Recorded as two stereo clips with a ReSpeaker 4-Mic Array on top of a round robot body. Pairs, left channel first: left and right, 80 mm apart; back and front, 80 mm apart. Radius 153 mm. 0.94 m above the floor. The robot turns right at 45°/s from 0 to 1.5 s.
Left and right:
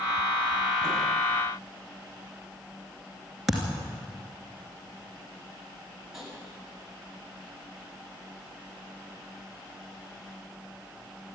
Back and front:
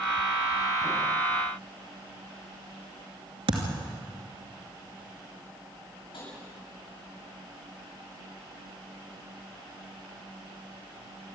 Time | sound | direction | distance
3.5 | a thud | 5° right | 2.5 m
6.1 | tapping | 175° right | 8.5 m